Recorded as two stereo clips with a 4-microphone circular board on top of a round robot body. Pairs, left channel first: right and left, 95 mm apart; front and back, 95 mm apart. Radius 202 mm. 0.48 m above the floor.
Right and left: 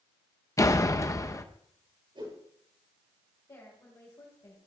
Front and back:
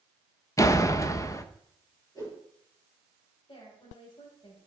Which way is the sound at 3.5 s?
35° right.